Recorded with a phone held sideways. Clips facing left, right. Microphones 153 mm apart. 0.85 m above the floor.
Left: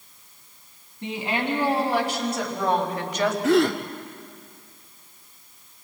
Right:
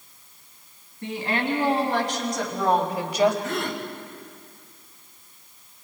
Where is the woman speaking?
20° left (ahead or behind), 5.5 m; by 3.3 s 15° right (ahead or behind), 3.5 m.